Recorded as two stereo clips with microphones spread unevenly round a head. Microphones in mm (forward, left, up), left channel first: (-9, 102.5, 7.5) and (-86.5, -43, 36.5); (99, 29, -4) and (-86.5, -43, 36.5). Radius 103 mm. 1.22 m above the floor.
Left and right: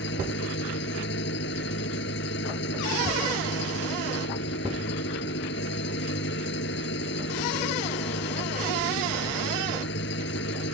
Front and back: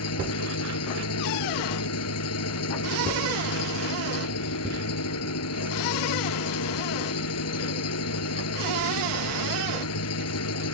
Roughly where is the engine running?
Ahead left.